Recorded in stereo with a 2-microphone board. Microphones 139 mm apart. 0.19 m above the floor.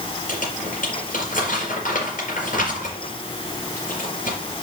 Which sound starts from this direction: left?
Crumpling, at 0.3 s.